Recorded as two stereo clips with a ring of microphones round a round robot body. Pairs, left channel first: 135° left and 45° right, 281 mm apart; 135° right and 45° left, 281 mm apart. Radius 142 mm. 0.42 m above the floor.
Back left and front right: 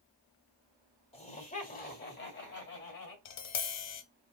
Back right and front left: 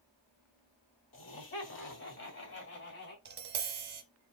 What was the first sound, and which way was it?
Laughter, 160° right.